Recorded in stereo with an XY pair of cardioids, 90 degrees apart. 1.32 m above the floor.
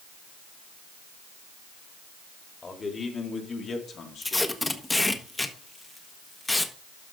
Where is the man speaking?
35° left, 3 m; by 4.5 s 75° left, 2.5 m.